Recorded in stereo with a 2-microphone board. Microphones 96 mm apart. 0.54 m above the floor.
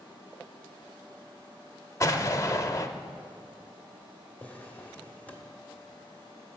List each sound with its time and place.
2.0 s an explosion: 30° left (ahead or behind), 0.5 m
4.4 s a drawer: 20° left (ahead or behind), 1.1 m